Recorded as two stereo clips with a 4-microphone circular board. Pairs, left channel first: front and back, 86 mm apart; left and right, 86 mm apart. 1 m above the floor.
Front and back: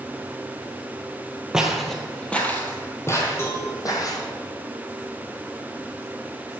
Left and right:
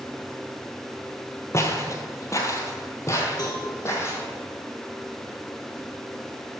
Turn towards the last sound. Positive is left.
turn(degrees=55)